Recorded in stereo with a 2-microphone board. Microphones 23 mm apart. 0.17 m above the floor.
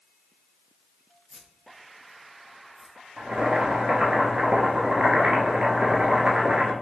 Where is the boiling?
60° right (ahead or behind), 1.2 m.